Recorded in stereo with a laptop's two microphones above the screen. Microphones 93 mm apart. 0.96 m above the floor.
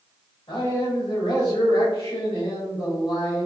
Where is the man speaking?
65° left (ahead or behind), 2.0 m.